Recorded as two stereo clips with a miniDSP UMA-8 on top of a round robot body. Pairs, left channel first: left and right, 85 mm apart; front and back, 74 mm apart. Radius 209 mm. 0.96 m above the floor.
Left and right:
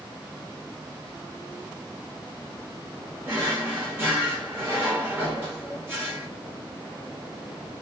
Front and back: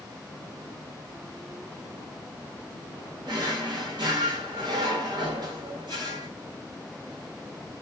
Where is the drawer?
155° right, 1.1 m.